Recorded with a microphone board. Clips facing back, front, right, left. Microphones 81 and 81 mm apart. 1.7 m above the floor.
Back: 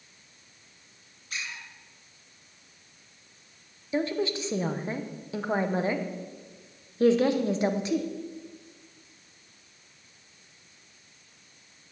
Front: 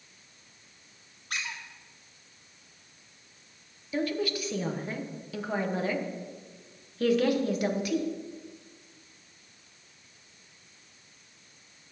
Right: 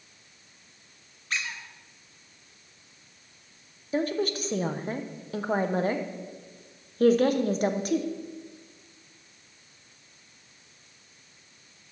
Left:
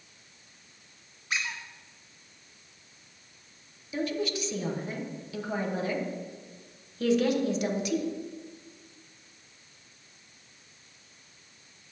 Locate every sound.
1.3 s a squeak: 10° left, 1.5 m
3.9 s a woman speaking: 120° right, 0.8 m